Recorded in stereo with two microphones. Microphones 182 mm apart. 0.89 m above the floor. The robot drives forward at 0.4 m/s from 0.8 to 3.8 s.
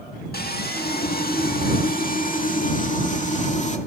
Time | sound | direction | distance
0.3 | sawing | 60° left (ahead or behind) | 1.7 m